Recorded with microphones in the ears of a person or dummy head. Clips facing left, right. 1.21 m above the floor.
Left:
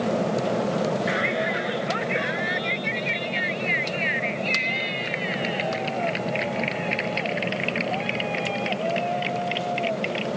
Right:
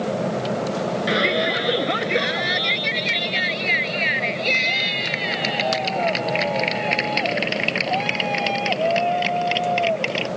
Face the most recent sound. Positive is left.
turn(degrees=-70)  # may be behind; listen again after turning